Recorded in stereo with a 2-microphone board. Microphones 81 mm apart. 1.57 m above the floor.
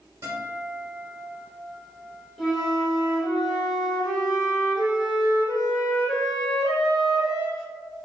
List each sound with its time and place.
0.2 s a guitar: 50° right (ahead or behind), 1.8 m
2.4 s a flute: 5° left (ahead or behind), 2 m